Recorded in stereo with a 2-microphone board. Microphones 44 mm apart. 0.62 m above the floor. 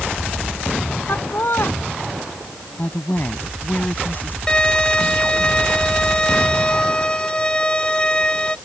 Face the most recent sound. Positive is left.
turn(degrees=20)  # may be behind; listen again after turning